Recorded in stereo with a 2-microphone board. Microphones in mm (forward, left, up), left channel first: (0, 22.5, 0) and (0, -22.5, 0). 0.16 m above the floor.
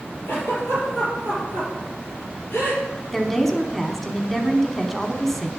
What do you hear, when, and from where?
0.3 s a giggle: 55° left (ahead or behind), 5 m
3.1 s a woman speaking: 5° left (ahead or behind), 1.0 m